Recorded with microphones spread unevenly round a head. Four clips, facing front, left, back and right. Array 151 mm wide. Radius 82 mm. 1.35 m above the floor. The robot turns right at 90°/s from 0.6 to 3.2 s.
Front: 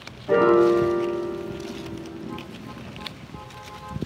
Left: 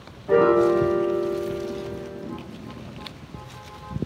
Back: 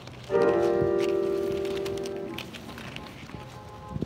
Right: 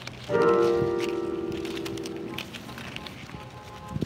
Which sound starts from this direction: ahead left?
A piano, at 0.3 s.